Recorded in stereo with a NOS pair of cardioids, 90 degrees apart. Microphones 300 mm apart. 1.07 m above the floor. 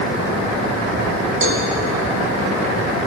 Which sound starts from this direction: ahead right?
A cowbell, at 1.4 s.